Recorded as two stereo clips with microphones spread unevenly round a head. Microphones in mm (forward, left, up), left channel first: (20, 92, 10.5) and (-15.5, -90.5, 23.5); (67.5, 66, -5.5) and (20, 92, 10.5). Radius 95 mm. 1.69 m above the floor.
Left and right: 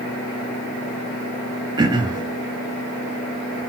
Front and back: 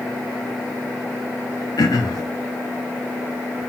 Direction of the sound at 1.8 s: 30° right.